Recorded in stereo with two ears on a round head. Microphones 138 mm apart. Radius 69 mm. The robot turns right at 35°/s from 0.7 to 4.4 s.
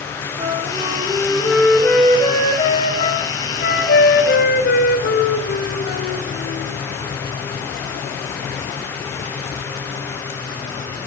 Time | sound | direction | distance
0.4 | a flute | 35° right | 3 m